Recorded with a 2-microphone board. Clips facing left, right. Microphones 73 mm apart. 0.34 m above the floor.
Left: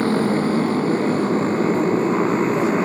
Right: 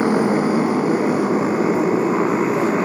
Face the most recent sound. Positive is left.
turn(degrees=-5)  # may be behind; listen again after turning